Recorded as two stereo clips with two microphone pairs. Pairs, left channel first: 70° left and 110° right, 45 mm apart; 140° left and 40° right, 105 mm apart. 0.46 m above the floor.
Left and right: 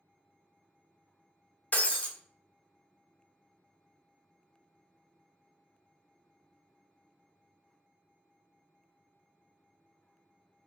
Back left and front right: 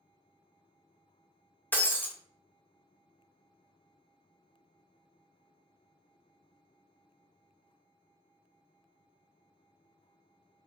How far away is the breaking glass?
About 0.6 m.